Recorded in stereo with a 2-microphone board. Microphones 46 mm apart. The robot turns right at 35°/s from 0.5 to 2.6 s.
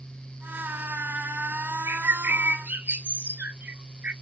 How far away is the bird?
About 0.5 m.